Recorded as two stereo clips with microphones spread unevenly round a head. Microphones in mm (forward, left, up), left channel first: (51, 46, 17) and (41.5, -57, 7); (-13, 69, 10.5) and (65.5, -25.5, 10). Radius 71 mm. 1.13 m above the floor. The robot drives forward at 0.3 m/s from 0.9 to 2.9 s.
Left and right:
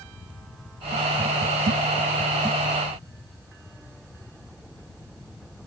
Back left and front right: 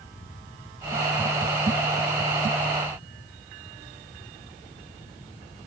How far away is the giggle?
I don't hear a giggle.